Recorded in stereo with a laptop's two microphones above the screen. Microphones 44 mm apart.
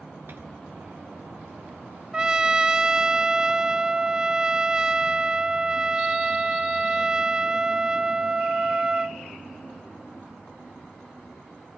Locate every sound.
0.3 s a microwave: 55° right (ahead or behind), 3 m
2.1 s a trumpet: 20° right (ahead or behind), 0.9 m